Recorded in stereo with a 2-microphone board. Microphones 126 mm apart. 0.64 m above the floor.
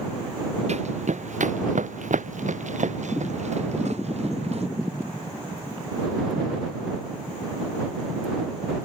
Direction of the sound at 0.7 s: 65° right (ahead or behind).